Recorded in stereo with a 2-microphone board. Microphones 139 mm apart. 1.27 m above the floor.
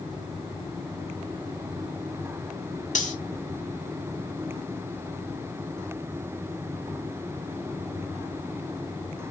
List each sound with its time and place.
3.0 s cutlery clinking: 60° left (ahead or behind), 1.5 m